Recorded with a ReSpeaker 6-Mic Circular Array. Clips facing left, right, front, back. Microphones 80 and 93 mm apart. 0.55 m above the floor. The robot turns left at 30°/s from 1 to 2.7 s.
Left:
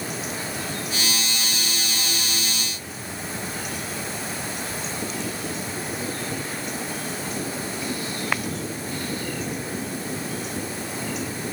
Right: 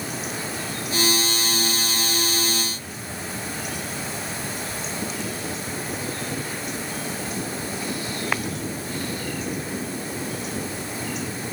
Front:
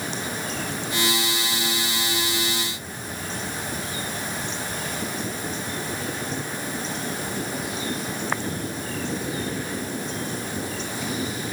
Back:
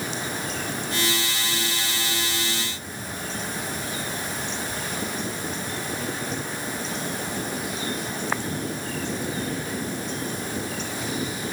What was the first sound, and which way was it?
Only background noise.